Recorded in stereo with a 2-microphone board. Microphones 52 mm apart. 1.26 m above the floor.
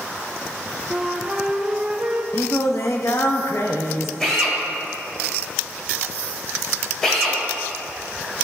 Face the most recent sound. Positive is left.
turn(degrees=10)  # may be behind; listen again after turning